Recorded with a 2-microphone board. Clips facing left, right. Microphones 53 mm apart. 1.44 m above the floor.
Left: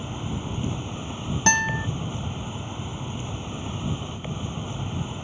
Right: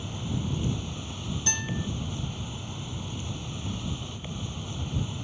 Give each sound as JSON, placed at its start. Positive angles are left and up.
{"t": 0.0, "sound": "an insect", "side_deg": 25}
{"t": 1.5, "sound": "a guitar", "side_deg": 60}